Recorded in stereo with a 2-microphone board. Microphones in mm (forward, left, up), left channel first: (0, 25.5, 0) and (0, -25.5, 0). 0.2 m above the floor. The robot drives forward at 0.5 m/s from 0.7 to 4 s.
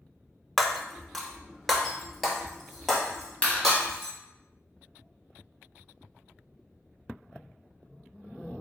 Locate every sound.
0.6 s breaking glass: 5° left (ahead or behind), 0.5 m; by 4.1 s centre (ahead or behind), 2 m
3.4 s a clap: 25° left (ahead or behind), 1.3 m